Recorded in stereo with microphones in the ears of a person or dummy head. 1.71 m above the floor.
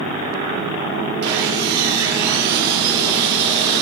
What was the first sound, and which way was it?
Sawing, 60° right (ahead or behind).